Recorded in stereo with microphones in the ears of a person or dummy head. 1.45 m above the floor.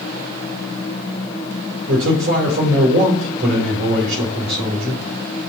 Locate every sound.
1.9 s a man speaking: 70° right (ahead or behind), 4.5 m